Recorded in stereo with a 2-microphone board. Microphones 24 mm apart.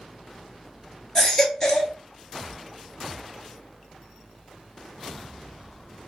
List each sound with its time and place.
1.1 s a baby crying: 20° left (ahead or behind), 0.9 m